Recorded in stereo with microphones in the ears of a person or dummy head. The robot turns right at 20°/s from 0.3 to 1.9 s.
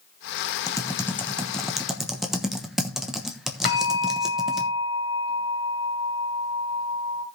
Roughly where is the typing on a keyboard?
Centre.